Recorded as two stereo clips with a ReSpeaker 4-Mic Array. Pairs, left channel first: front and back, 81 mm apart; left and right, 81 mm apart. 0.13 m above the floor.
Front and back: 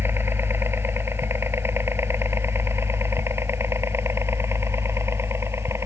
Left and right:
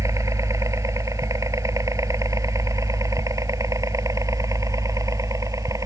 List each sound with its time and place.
0.0 s a helicopter: 125° right; by 5.9 s 130° right